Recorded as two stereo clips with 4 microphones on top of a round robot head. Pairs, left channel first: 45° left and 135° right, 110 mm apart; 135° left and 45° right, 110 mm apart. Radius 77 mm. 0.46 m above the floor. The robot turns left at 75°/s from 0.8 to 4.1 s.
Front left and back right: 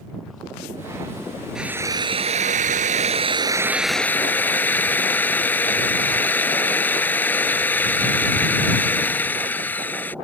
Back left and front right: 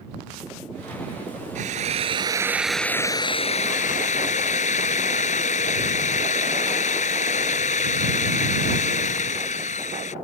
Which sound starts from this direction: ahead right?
A drill, at 1.6 s.